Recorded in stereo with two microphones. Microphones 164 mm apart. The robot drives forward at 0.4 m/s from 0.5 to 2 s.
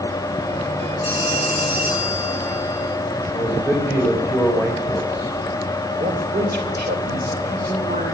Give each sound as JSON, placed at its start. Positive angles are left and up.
{"t": 1.0, "sound": "a phone ringing", "side_deg": -70, "distance_m": 6.0}
{"t": 3.3, "sound": "a man speaking", "side_deg": -15, "distance_m": 2.5}
{"t": 6.0, "sound": "a man speaking", "side_deg": -70, "distance_m": 3.0}